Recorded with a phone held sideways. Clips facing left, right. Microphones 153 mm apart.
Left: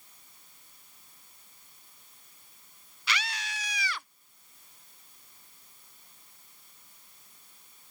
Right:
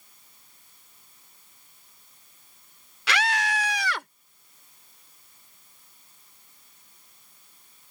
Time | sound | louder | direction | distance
3.1 | a scream | right 10 dB | 85° right | ?